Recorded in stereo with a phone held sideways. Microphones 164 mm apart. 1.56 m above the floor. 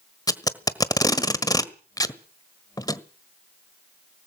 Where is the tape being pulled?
25° left (ahead or behind), 1.4 m.